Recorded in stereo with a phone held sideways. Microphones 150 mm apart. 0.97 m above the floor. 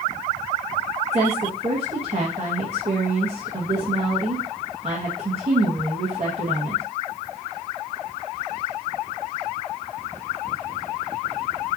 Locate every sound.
1.1 s a woman speaking: 40° right (ahead or behind), 1.2 m